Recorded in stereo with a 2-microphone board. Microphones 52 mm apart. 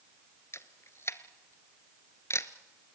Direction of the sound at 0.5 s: 55° left (ahead or behind).